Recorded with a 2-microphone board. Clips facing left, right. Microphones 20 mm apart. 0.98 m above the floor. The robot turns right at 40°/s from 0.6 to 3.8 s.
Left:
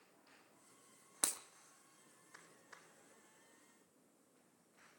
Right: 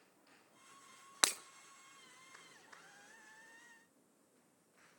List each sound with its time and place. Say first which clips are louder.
1.2 s breaking glass: right 8 dB; 45° right (ahead or behind), 0.6 m; by 1.4 s 40° right (ahead or behind), 0.6 m